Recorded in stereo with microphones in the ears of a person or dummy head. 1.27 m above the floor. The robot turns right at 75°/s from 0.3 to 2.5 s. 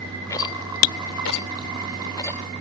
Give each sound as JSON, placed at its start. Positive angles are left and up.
{"t": 0.3, "sound": "a rattle", "side_deg": 20}